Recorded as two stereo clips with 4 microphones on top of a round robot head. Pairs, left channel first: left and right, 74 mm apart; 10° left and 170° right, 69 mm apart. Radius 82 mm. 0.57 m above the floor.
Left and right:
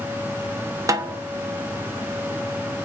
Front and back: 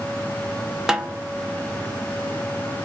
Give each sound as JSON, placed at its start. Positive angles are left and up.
{"t": 0.9, "sound": "a snare drum", "azimuth_deg": -95, "distance_m": 0.5}